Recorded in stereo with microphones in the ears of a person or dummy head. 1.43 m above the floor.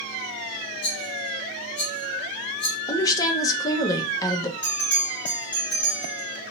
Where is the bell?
5° left (ahead or behind), 2 m.